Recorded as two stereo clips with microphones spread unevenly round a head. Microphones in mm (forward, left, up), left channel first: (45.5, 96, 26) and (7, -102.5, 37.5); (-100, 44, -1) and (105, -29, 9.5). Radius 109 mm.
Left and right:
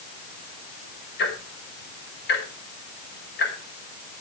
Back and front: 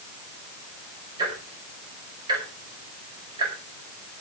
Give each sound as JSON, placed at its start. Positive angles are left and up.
{"t": 1.2, "sound": "ticking", "azimuth_deg": 50, "distance_m": 5.0}